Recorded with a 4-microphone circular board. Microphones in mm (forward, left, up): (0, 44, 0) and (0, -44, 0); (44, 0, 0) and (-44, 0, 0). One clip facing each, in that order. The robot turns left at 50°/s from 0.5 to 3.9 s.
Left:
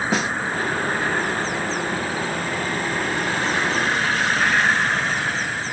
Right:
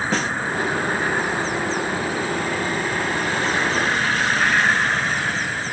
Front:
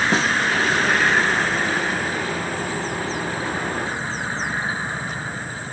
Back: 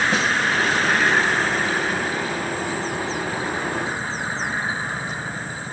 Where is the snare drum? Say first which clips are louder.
Left 1 dB, front 1 dB; 15° left, 0.7 m.